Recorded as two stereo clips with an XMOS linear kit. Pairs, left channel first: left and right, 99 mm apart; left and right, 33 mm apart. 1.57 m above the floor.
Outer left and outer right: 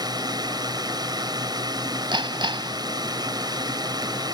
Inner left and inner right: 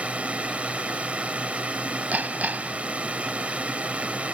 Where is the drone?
45° right (ahead or behind).